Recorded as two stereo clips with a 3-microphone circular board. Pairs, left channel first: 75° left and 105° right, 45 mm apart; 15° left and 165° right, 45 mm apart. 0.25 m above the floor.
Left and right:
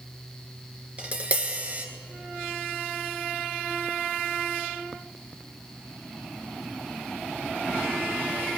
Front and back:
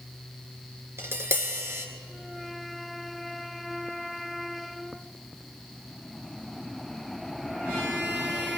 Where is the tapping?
160° right, 1.6 m.